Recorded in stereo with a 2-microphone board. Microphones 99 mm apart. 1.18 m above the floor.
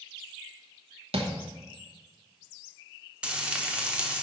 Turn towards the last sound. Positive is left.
turn(degrees=-10)  # may be behind; listen again after turning